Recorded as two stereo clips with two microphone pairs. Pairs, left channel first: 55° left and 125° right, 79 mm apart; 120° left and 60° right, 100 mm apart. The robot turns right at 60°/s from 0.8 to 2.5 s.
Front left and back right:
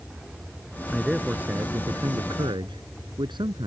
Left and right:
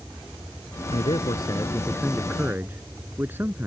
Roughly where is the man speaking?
Behind left.